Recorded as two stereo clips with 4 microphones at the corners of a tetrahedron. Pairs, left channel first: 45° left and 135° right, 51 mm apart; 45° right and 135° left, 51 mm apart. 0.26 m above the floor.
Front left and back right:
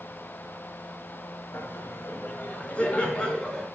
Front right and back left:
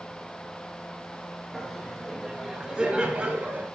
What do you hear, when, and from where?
1.5 s laughter: 45° left, 1.7 m; by 3.7 s 120° left, 1.4 m